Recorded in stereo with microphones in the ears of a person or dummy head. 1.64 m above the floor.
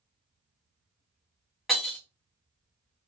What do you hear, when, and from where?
1.7 s breaking glass: centre (ahead or behind), 1.1 m